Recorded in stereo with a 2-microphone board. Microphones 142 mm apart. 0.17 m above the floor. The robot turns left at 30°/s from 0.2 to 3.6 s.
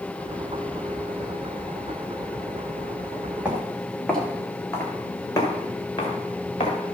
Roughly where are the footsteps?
Centre.